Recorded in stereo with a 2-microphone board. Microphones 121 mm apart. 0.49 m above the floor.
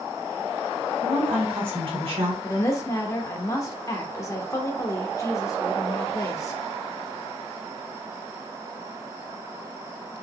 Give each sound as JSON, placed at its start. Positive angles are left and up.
{"t": 1.0, "sound": "a woman speaking", "side_deg": -50, "distance_m": 2.0}
{"t": 2.4, "sound": "a woman speaking", "side_deg": 25, "distance_m": 0.9}